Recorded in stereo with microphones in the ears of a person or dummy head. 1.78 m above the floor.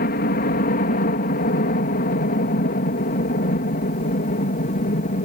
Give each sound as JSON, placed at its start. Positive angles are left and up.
{"t": 0.0, "sound": "a helicopter", "side_deg": 50}